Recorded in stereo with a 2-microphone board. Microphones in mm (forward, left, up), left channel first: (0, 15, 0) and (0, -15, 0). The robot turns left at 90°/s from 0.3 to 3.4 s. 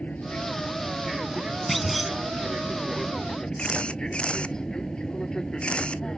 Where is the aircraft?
65° left; by 6.2 s 145° left.